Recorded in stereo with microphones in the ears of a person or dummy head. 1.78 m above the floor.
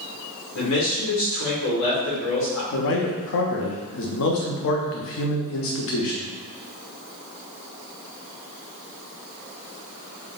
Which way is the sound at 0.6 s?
70° left (ahead or behind).